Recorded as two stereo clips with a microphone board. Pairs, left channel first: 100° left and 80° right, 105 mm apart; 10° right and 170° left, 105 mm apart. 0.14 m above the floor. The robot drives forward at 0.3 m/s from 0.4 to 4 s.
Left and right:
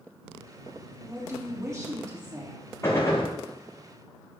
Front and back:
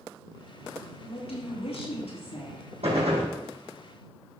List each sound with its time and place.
1.0 s a woman speaking: 20° right, 4.5 m
2.8 s a gunshot: 160° left, 3.5 m